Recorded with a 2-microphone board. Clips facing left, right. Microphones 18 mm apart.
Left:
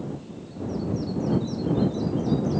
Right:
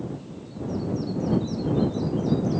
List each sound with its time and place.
Only background noise.